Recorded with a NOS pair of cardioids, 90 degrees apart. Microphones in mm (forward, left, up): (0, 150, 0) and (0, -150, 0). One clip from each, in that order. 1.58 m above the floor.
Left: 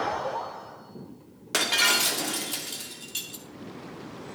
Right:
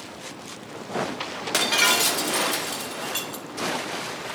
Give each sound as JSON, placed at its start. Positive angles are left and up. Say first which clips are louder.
{"t": 1.5, "sound": "breaking glass", "louder": "right 2 dB", "azimuth_deg": -15, "distance_m": 2.5}